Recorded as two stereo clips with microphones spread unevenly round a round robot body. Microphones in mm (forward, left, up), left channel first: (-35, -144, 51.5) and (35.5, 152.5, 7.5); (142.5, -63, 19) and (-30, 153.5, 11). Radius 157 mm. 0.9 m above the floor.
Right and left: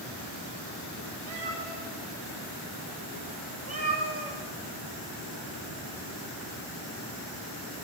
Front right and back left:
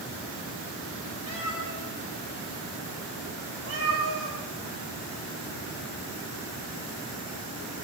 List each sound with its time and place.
1.3 s a cat meowing: 120° left, 8.5 m; by 4.4 s 155° left, 6.5 m